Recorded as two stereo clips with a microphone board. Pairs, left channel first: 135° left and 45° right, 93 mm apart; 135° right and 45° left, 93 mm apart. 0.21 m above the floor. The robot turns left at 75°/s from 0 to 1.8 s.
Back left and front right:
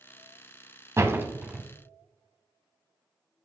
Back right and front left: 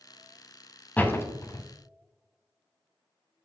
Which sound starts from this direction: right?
A door slam, at 1.0 s.